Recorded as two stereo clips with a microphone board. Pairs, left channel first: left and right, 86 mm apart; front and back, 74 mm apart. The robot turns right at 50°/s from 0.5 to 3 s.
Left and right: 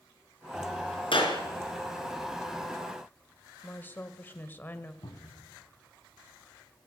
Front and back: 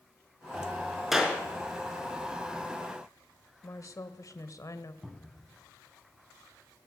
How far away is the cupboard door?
About 3 m.